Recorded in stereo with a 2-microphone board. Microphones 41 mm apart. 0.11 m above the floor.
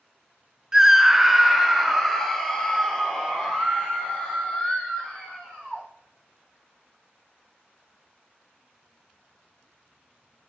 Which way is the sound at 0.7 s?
15° right (ahead or behind).